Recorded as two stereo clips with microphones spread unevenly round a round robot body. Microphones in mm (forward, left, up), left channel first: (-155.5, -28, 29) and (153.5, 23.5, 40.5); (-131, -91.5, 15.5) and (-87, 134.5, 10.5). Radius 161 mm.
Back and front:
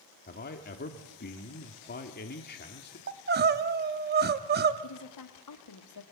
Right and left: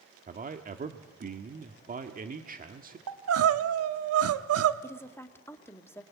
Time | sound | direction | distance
0.3 | a man speaking | 130° left | 1.4 m
3.1 | crying | 70° left | 1.1 m
4.8 | a woman speaking | straight behind | 1.8 m